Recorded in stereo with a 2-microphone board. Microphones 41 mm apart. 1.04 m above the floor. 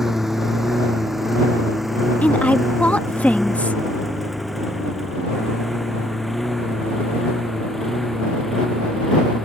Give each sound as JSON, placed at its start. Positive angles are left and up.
{"t": 0.0, "sound": "a lawn mower", "side_deg": -10}
{"t": 2.2, "sound": "a woman speaking", "side_deg": 35}